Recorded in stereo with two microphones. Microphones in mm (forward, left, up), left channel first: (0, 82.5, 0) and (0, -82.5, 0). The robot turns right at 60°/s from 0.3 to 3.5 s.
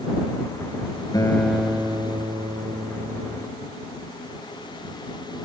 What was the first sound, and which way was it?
A guitar, 155° left.